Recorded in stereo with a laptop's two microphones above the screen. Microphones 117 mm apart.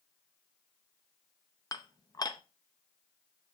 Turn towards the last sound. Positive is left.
turn(degrees=35)  # may be behind; listen again after turning